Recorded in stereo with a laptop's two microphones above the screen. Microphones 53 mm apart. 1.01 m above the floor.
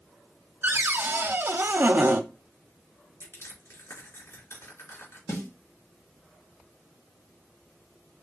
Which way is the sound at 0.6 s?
45° right (ahead or behind).